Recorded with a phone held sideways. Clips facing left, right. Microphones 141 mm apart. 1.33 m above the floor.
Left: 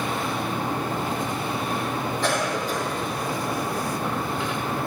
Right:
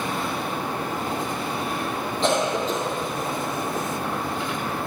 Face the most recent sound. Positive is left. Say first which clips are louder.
# right 5 dB
turn(degrees=-20)  # may be behind; listen again after turning